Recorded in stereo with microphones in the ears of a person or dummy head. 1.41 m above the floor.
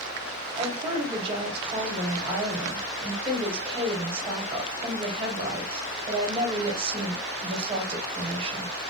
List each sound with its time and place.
0.6 s a woman speaking: 30° right (ahead or behind), 1.2 m